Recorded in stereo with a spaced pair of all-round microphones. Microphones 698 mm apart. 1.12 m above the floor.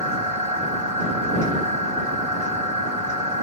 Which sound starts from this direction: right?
A machine running, at 0.0 s.